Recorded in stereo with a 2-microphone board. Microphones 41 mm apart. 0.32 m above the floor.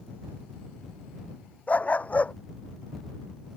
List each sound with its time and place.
1.7 s a dog barking: 35° left (ahead or behind)